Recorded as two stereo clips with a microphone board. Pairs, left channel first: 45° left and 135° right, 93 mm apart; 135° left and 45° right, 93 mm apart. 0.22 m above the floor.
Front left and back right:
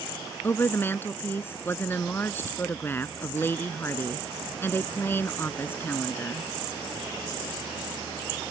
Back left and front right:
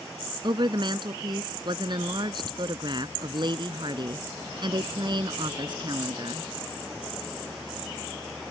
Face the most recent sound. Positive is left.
turn(degrees=-20)